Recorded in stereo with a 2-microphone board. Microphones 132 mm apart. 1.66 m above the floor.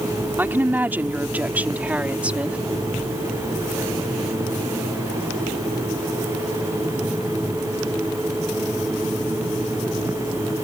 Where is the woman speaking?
15° right (ahead or behind); by 2.6 s 10° right (ahead or behind).